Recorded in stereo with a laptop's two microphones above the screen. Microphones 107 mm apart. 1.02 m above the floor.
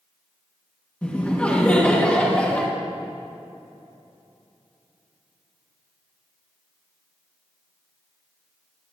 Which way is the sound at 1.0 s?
10° left (ahead or behind).